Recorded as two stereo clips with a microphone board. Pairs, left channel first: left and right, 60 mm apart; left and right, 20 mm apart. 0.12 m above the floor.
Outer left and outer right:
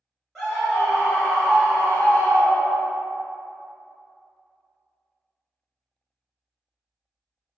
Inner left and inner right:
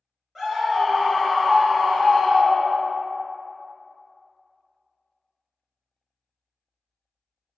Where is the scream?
5° left (ahead or behind), 1.5 m; by 3.0 s 45° right (ahead or behind), 1.5 m.